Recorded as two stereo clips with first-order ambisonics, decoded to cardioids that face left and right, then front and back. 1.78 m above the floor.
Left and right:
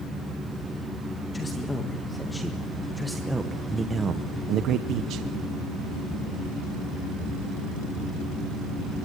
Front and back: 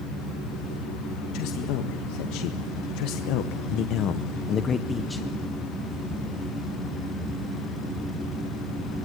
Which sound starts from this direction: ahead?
A man speaking, at 1.3 s.